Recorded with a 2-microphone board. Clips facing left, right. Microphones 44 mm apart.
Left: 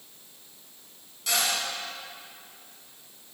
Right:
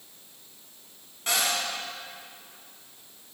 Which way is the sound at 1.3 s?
35° right (ahead or behind).